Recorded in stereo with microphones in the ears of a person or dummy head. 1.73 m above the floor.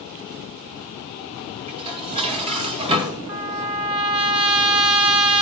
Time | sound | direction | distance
1.7 | dishes clattering | 35° right (ahead or behind) | 3 m
3.3 | a trumpet | 25° right (ahead or behind) | 0.7 m